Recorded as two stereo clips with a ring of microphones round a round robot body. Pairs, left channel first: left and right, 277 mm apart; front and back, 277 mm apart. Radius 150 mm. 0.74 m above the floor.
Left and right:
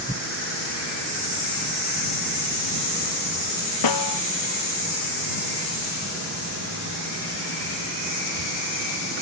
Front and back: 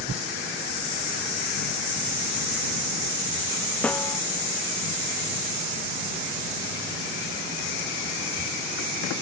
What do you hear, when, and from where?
3.8 s a snare drum: 85° left